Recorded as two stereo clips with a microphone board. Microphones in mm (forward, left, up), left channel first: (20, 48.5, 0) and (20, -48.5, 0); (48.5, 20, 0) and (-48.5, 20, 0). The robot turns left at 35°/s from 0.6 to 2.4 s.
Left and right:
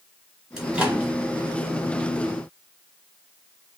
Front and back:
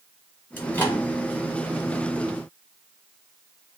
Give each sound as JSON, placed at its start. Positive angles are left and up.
{"t": 0.6, "sound": "a microwave", "azimuth_deg": -20, "distance_m": 1.0}